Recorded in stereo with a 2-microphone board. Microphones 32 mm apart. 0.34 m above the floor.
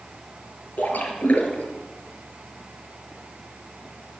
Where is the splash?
60° left (ahead or behind), 4 m.